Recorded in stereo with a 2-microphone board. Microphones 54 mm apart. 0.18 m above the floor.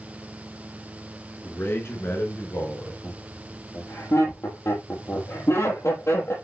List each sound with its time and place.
1.4 s a man speaking: 40° left (ahead or behind), 2.5 m; by 2.9 s 60° left (ahead or behind), 3.5 m
3.0 s laughter: 65° left (ahead or behind), 4.5 m